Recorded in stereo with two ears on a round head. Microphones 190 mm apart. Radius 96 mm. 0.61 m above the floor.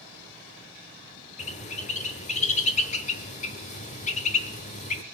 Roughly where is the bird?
Left.